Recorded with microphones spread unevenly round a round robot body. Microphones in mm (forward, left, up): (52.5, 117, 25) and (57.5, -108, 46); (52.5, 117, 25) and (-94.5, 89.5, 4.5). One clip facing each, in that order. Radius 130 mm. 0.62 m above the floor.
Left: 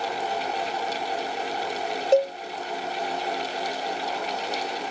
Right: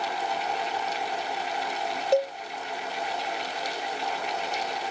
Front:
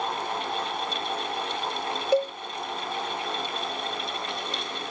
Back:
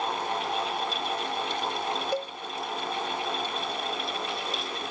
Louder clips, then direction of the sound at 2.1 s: Left 4 dB, front 8 dB; 20° left.